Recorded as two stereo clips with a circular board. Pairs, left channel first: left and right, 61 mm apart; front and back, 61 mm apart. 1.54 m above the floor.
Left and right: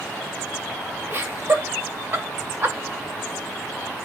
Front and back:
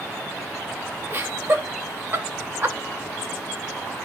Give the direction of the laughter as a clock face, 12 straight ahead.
4 o'clock.